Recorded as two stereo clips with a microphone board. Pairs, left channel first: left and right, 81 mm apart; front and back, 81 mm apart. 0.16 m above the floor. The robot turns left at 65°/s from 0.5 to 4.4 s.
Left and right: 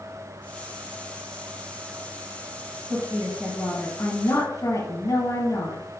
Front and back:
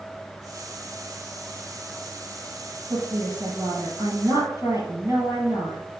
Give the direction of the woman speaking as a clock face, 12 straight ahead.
4 o'clock.